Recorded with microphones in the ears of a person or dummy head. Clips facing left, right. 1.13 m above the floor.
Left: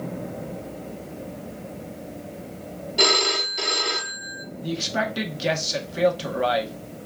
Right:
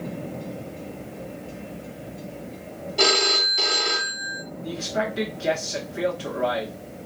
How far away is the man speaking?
About 1.1 m.